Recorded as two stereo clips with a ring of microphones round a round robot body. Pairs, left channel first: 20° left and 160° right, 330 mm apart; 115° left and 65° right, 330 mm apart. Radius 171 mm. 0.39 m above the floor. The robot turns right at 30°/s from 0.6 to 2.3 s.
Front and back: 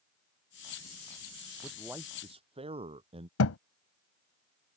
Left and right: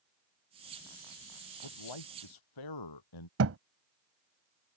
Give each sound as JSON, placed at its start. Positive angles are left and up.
{"t": 1.6, "sound": "a man speaking", "azimuth_deg": 110}
{"t": 3.4, "sound": "a thud", "azimuth_deg": -20}